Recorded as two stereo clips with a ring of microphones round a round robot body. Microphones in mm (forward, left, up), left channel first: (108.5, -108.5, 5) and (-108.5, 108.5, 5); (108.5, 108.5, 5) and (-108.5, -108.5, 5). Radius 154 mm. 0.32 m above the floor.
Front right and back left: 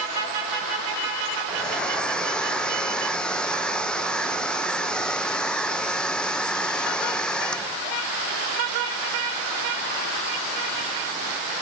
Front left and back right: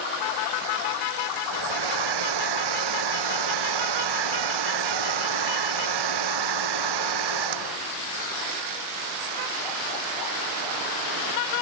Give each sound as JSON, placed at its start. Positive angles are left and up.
{"t": 1.5, "sound": "a hair dryer", "azimuth_deg": -130}